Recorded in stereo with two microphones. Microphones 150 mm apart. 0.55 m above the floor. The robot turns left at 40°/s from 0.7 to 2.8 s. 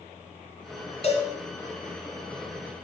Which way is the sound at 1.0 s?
45° left (ahead or behind).